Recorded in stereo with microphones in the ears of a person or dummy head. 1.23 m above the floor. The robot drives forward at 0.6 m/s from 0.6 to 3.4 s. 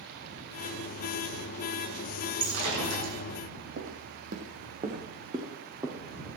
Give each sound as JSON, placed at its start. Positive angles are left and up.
{"t": 2.4, "sound": "breaking glass", "side_deg": -80, "distance_m": 9.0}
{"t": 3.8, "sound": "footsteps", "side_deg": -55, "distance_m": 3.0}